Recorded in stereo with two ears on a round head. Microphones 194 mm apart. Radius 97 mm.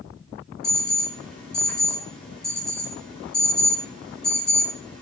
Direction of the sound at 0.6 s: 5° left (ahead or behind).